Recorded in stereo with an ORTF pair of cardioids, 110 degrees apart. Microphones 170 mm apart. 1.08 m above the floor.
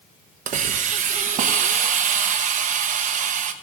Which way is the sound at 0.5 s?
50° right.